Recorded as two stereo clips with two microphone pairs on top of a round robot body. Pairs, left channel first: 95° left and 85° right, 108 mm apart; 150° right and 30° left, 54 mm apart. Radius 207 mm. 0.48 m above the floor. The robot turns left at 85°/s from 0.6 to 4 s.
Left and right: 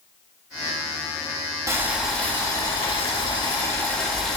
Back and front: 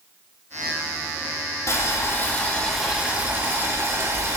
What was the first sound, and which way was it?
Boiling, 145° right.